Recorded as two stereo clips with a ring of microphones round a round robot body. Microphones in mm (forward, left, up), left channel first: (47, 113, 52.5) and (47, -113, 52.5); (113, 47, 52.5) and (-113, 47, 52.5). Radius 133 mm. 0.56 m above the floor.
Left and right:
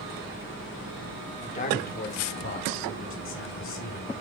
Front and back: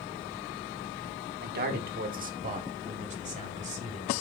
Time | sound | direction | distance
1.4 | a man speaking | 145° left | 1.3 m